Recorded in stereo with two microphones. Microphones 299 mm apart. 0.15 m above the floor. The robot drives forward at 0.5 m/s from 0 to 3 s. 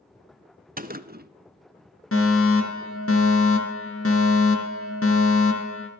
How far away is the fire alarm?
About 3.5 m.